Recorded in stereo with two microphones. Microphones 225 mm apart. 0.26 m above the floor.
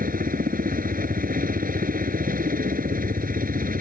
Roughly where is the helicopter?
Right.